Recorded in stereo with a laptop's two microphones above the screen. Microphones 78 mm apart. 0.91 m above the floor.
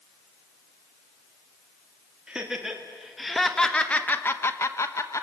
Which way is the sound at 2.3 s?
10° right (ahead or behind).